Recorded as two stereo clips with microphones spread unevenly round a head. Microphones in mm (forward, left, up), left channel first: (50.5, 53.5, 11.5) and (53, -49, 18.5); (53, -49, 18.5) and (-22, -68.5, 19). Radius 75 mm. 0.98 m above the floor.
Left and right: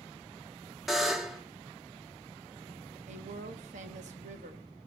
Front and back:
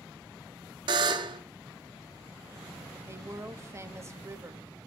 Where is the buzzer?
175° right, 0.6 m.